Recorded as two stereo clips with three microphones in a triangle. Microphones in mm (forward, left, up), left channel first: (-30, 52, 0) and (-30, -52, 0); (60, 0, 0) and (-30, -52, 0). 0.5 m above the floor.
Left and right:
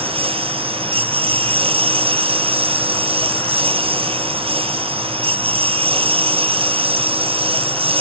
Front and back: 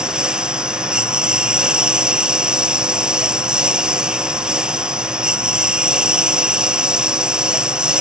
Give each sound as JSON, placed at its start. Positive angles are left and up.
{"t": 0.0, "sound": "a lawn mower", "azimuth_deg": -70}